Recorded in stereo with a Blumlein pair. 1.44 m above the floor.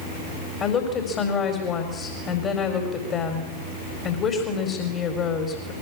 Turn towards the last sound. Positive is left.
turn(degrees=25)